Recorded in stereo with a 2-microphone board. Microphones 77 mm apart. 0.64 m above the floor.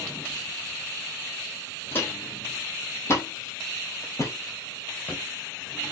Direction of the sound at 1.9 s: 30° left (ahead or behind).